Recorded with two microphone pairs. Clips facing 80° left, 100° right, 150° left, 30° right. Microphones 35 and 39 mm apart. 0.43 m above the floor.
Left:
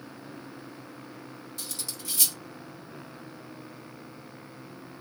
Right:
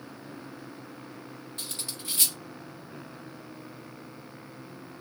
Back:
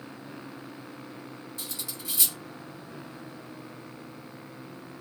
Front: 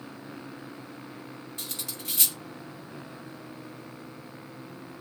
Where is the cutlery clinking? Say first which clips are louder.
Right 1 dB, front 1 dB; 55° right, 1.1 m.